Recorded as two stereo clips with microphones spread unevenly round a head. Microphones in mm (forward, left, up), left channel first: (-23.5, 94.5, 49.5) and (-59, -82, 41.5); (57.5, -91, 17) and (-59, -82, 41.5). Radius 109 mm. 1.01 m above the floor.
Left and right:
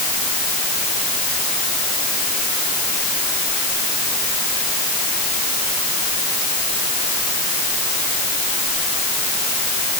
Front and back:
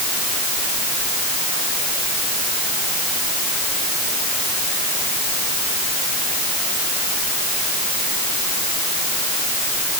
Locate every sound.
Only background noise.